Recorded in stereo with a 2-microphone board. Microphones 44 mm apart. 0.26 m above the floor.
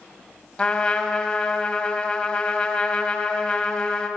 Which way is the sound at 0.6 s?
25° left (ahead or behind).